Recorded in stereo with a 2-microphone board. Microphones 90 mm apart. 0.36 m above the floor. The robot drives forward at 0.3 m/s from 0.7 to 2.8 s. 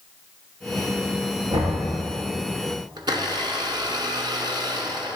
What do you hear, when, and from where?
1.5 s knocking: 70° right (ahead or behind), 5 m
3.0 s a blender: 60° right (ahead or behind), 1.5 m